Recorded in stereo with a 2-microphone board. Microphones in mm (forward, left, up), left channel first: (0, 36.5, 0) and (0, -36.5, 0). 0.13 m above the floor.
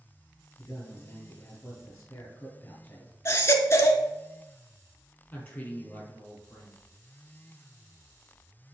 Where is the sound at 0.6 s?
25° left (ahead or behind), 2 m.